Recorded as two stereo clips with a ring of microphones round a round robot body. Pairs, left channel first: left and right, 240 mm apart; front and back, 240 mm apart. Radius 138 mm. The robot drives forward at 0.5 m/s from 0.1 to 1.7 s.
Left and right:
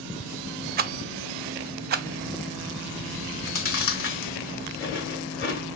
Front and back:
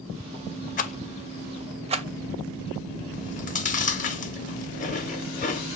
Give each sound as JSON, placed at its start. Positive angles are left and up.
{"t": 0.8, "sound": "a rattle", "azimuth_deg": -45, "distance_m": 0.5}
{"t": 3.2, "sound": "chewing", "azimuth_deg": 55, "distance_m": 0.9}